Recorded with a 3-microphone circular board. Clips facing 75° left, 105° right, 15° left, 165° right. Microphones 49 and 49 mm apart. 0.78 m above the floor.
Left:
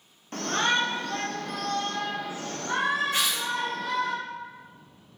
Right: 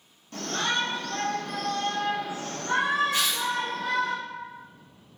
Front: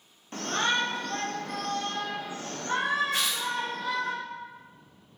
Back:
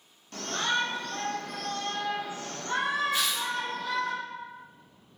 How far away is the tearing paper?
About 1.2 m.